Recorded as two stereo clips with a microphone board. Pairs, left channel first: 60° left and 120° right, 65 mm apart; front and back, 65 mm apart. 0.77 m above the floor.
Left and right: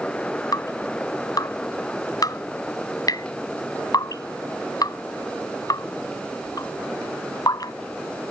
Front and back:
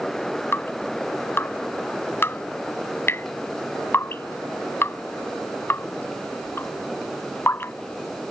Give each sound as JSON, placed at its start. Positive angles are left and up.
{"t": 0.5, "sound": "dripping", "azimuth_deg": 50}